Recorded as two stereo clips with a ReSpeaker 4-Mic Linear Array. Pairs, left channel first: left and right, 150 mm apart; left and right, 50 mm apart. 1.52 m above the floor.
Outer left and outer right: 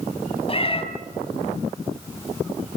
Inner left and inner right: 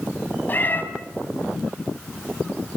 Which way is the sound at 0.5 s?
40° left (ahead or behind).